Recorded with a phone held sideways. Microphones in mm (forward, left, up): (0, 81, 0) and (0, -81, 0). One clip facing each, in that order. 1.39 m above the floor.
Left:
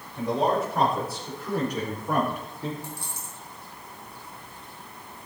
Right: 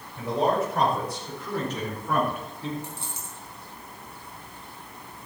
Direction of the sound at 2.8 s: 25° right (ahead or behind).